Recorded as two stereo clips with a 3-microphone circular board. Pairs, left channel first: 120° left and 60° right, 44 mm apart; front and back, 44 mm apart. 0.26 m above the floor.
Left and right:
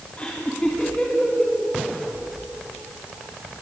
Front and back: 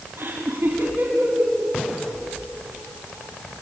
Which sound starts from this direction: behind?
Laughter, at 0.2 s.